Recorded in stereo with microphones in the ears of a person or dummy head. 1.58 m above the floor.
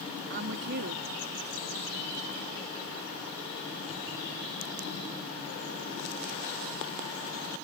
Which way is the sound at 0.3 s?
60° right (ahead or behind).